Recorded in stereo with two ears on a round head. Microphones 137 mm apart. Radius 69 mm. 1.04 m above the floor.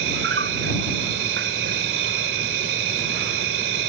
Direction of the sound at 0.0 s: 80° right.